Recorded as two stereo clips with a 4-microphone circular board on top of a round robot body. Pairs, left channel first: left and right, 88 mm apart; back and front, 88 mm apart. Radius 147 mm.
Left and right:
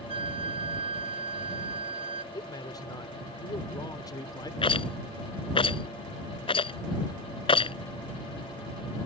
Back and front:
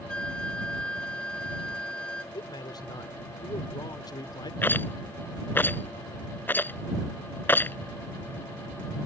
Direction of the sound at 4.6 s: 110° left.